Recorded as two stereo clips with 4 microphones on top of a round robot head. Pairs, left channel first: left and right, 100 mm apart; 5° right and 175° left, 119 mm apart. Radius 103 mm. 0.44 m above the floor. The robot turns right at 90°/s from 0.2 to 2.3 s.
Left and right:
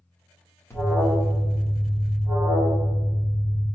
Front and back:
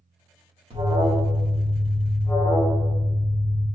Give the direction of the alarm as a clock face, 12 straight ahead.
7 o'clock.